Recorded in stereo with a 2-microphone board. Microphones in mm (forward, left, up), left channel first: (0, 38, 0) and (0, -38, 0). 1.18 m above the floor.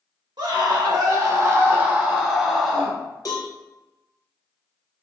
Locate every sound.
0.4 s a scream: 65° right (ahead or behind), 1.4 m; by 3.0 s 10° left (ahead or behind), 1.5 m
3.2 s a cowbell: 50° left (ahead or behind), 1.0 m